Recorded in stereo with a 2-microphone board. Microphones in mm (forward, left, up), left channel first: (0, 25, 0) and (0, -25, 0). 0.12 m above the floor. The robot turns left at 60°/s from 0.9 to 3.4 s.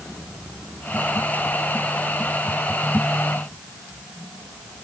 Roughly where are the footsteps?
I don't hear footsteps.